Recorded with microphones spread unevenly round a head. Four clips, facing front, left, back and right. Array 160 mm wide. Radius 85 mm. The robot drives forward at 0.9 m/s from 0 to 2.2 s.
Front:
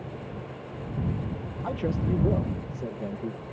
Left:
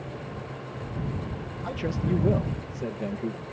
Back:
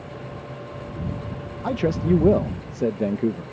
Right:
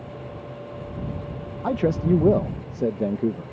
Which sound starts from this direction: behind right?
A man speaking, at 1.6 s.